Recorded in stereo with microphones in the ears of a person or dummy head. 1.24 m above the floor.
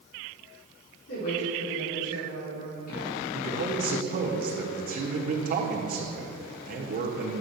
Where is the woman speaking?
60° left (ahead or behind), 4 m; by 3.2 s 45° left (ahead or behind), 4.5 m.